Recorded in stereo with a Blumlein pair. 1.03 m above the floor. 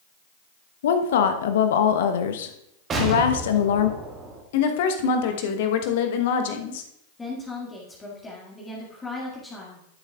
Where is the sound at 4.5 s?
50° left, 1.1 m.